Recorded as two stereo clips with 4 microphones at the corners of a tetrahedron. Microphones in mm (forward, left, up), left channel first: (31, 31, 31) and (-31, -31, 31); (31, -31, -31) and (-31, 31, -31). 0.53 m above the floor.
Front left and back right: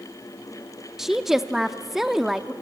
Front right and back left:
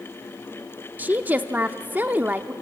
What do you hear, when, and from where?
1.0 s a woman speaking: 145° left, 0.6 m